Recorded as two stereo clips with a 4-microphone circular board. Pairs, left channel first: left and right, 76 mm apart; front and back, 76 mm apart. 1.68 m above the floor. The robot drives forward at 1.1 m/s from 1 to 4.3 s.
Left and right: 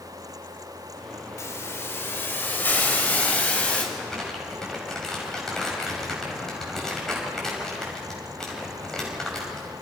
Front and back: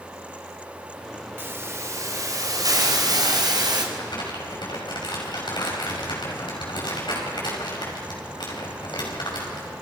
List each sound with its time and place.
1.4 s a hiss: 130° left, 1.9 m; by 3.8 s 160° left, 4 m
3.9 s crumpling: 5° left, 6.5 m